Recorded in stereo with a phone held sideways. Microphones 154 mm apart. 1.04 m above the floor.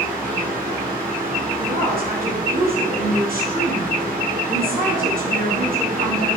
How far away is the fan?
About 4.5 m.